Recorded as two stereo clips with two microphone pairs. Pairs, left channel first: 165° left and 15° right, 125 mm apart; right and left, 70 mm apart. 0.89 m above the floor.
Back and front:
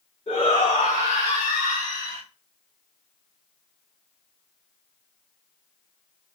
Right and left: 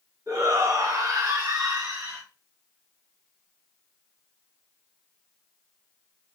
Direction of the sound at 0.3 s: 130° left.